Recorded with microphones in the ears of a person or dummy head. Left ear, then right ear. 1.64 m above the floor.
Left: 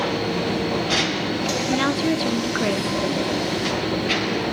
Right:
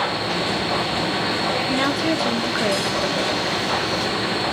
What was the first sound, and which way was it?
A machine running, 20° right (ahead or behind).